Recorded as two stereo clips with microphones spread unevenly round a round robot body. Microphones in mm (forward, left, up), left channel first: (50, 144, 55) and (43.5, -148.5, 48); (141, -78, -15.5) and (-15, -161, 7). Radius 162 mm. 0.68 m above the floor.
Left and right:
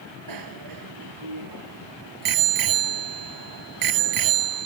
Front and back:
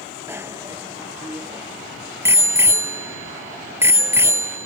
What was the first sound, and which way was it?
A bicycle bell, 75° right.